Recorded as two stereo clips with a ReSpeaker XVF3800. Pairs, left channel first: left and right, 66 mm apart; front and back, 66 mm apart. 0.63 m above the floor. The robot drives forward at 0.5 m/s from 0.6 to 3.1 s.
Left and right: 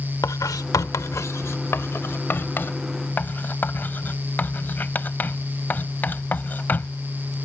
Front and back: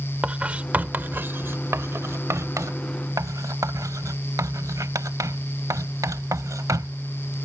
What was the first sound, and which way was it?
Writing, 115° left.